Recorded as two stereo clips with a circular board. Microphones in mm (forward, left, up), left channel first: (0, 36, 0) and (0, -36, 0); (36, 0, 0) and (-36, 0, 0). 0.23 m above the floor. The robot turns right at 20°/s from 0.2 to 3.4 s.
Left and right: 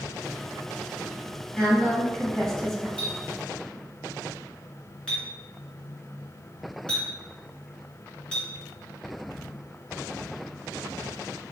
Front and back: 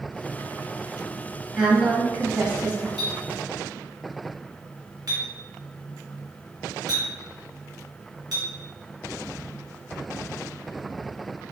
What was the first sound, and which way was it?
A woman speaking, 140° left.